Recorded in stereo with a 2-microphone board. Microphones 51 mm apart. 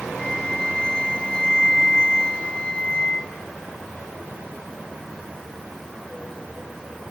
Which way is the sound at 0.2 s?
20° left (ahead or behind).